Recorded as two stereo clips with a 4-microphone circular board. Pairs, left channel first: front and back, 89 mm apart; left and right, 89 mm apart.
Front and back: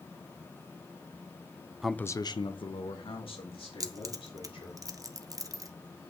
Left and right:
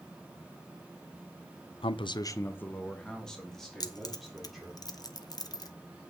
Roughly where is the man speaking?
Left.